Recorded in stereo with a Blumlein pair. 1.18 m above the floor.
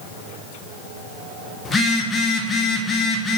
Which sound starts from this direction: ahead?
A phone buzzing, at 1.6 s.